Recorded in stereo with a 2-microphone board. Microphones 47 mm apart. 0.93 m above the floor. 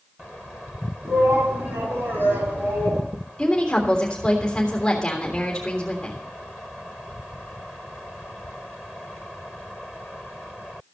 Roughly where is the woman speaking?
Centre.